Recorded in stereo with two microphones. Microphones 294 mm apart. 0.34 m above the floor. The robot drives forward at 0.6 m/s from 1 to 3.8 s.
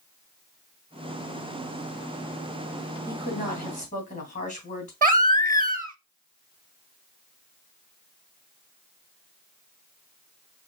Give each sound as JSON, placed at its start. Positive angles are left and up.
{"t": 3.1, "sound": "a woman speaking", "side_deg": 30, "distance_m": 2.5}
{"t": 5.0, "sound": "a baby crying", "side_deg": -30, "distance_m": 0.6}